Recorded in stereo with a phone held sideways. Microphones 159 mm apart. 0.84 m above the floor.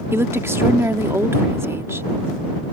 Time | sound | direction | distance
0.1 | a woman speaking | 15° right (ahead or behind) | ?